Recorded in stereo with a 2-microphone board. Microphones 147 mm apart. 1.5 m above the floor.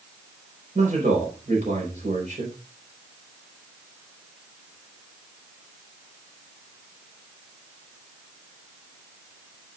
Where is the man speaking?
60° right (ahead or behind), 5 m.